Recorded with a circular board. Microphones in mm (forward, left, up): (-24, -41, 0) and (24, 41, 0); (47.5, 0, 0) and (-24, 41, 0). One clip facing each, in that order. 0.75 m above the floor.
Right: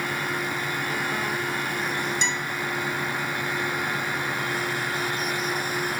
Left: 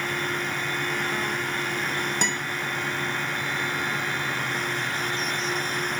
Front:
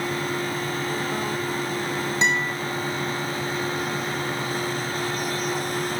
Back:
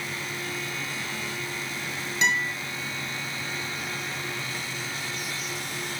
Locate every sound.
2.2 s a guitar: 30° left, 2.5 m